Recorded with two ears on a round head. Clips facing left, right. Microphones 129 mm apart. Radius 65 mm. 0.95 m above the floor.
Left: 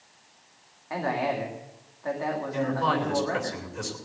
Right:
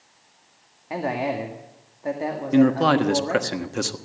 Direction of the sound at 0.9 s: 25° right (ahead or behind).